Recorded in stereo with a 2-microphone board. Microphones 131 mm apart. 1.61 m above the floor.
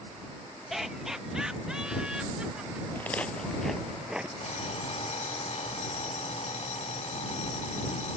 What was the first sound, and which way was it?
Laughter, centre (ahead or behind).